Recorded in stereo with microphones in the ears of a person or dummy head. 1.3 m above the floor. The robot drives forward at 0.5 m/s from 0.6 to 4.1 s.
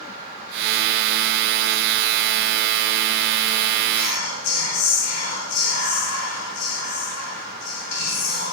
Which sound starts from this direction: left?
Whispering, at 3.9 s.